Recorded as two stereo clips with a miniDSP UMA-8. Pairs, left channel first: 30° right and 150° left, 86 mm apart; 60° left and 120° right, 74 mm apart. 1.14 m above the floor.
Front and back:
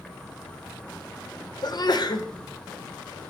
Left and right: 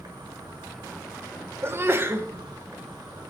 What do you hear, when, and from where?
0.0 s an insect: 105° right, 1.2 m
1.6 s a sneeze: 65° right, 0.6 m